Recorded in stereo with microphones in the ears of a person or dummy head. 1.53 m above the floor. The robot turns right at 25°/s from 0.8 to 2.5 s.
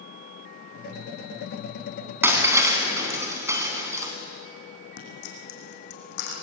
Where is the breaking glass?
10° right (ahead or behind), 3.5 m; by 4.1 s 15° right (ahead or behind), 3.5 m.